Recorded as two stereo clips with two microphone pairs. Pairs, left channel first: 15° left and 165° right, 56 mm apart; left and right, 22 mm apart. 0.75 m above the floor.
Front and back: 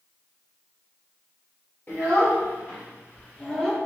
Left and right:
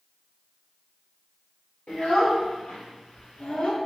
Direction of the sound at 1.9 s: 65° left.